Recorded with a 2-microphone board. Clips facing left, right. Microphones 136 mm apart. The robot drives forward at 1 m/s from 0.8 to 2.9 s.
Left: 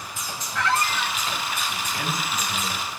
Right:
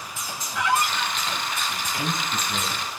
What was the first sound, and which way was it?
A squeak, 15° right (ahead or behind).